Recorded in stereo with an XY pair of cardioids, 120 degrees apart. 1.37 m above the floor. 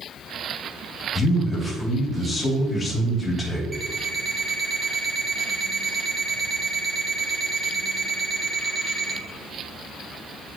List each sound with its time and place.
1.1 s a man speaking: 10° left, 2.5 m
3.7 s an alarm clock: 15° right, 1.6 m